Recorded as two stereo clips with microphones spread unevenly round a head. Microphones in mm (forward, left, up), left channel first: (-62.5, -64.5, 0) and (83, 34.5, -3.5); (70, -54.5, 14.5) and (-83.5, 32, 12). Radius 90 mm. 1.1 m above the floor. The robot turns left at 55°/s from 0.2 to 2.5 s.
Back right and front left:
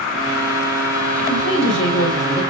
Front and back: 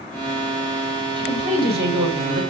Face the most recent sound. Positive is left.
turn(degrees=145)